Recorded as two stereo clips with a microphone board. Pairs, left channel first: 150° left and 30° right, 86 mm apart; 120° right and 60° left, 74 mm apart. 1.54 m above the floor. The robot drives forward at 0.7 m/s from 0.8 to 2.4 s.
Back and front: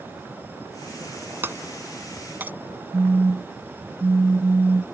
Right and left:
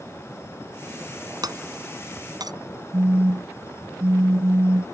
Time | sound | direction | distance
1.4 | breaking glass | 35° left | ?
2.9 | a phone buzzing | 30° left | ?